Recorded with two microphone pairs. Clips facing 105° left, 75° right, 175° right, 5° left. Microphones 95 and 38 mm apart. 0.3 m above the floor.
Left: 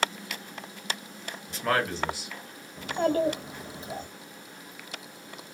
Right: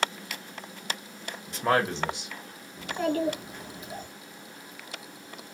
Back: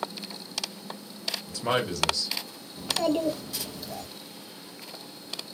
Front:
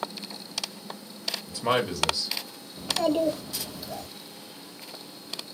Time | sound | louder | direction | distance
1.5 | a man speaking | right 2 dB, front 2 dB | 55° right | 0.9 m
2.8 | a child speaking | left 2 dB, front 1 dB | 85° left | 0.9 m